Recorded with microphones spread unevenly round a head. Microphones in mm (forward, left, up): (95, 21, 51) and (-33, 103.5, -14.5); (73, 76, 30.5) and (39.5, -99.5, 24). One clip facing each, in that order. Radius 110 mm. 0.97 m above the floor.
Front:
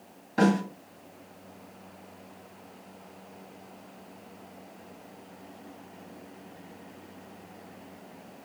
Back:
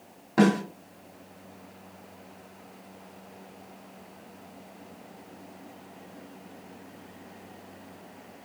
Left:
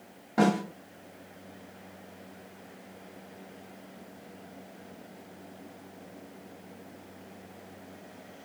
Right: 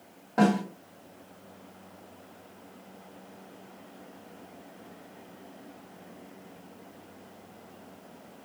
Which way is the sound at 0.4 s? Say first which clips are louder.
Back 2 dB, right 1 dB; 165° left.